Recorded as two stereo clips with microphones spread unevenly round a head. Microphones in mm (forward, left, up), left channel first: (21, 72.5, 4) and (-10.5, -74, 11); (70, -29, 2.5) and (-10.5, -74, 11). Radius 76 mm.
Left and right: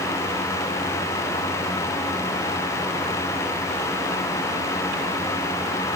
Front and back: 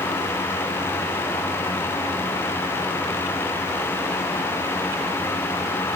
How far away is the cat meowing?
I don't hear a cat meowing.